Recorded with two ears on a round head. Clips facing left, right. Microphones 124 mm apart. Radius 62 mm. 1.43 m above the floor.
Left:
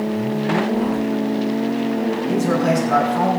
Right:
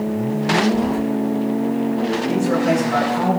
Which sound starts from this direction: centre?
Keys jangling, at 0.7 s.